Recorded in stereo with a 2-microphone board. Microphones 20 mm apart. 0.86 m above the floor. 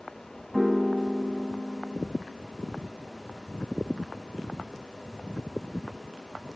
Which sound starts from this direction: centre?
A piano, at 0.5 s.